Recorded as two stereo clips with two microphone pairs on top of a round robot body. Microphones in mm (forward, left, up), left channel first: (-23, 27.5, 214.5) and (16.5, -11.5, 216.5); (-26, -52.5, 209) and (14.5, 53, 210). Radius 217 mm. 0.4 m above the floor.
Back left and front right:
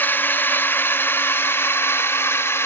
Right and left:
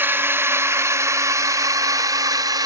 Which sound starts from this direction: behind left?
A drone, at 0.0 s.